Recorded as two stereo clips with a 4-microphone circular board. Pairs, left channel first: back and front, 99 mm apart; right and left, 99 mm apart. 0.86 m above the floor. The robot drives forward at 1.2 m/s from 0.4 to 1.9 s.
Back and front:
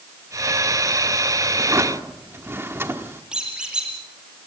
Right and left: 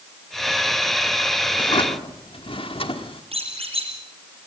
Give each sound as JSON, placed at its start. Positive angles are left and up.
{"t": 1.6, "sound": "a drawer", "azimuth_deg": -50, "distance_m": 1.5}
{"t": 3.3, "sound": "a squeak", "azimuth_deg": 80, "distance_m": 7.5}